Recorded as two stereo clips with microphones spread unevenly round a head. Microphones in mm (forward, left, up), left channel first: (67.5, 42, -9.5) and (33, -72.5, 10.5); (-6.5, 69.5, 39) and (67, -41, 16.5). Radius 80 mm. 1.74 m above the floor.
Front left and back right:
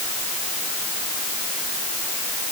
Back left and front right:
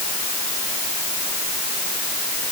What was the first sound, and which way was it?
Only background noise.